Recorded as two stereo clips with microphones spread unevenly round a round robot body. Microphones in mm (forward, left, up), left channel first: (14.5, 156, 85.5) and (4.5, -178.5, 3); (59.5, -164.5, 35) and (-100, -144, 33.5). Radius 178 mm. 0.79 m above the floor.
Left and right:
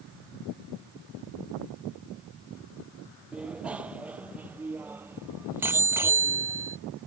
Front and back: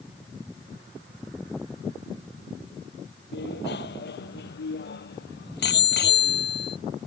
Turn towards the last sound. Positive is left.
turn(degrees=-10)